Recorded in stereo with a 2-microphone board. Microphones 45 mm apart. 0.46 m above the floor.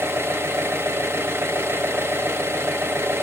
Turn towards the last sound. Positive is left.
turn(degrees=-65)  # may be behind; listen again after turning